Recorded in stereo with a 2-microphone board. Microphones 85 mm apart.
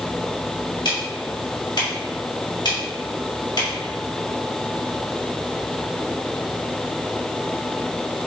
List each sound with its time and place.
0.8 s ticking: 65° left (ahead or behind), 1.9 m